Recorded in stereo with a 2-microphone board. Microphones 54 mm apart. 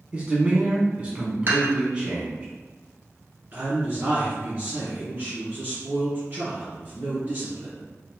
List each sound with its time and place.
0.1 s a man speaking: 20° right (ahead or behind), 1.0 m
1.5 s dishes clattering: 45° right (ahead or behind), 1.6 m
3.5 s a man speaking: 35° right (ahead or behind), 1.9 m